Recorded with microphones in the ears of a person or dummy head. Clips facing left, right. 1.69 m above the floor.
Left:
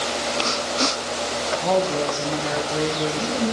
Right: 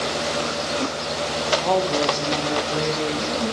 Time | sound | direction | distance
1.6 | a woman speaking | centre (ahead or behind) | 1.6 m